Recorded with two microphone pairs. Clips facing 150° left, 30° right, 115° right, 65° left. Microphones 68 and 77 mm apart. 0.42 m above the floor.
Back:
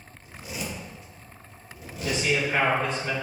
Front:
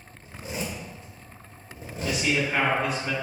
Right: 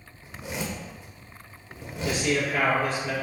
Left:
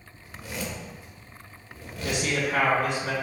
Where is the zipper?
60° right, 1.4 m.